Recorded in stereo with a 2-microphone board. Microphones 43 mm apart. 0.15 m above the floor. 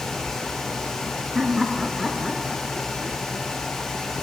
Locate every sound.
1.4 s laughter: 15° right (ahead or behind), 2 m; by 3.5 s 20° left (ahead or behind), 2 m